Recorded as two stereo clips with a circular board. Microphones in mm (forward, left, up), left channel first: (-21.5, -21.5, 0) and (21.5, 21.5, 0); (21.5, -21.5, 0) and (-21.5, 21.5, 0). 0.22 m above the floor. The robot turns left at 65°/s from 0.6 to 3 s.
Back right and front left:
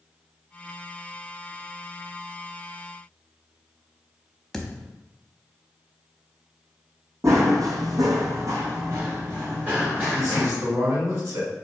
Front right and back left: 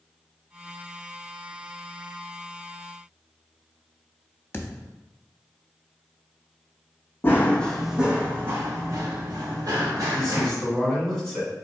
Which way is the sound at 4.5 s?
50° right.